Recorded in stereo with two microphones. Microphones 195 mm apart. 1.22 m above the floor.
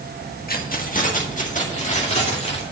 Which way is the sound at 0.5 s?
50° left (ahead or behind).